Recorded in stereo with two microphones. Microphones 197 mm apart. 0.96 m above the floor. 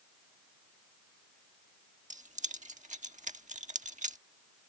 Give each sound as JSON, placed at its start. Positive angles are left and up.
{"t": 2.1, "sound": "keys jangling", "side_deg": -35}